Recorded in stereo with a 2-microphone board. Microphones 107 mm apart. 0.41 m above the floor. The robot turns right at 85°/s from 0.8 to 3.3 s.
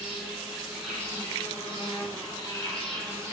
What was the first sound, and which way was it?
An insect, 10° right.